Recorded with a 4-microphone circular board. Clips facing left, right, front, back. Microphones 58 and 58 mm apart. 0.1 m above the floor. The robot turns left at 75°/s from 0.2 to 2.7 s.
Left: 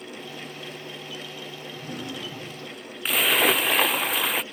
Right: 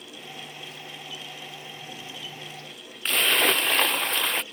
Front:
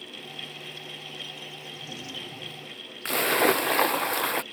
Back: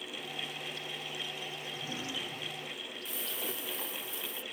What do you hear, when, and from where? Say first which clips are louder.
1.7 s a drawer: left 5 dB, back 1 dB; 135° left; by 2.8 s 65° left
3.0 s a splash: left 1 dB, front 21 dB; 5° left